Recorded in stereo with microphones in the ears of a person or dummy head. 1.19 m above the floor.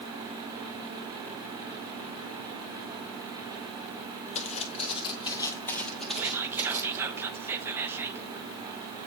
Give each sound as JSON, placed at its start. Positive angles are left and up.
{"t": 4.3, "sound": "footsteps", "side_deg": 35, "distance_m": 1.8}
{"t": 6.2, "sound": "whispering", "side_deg": -5, "distance_m": 0.6}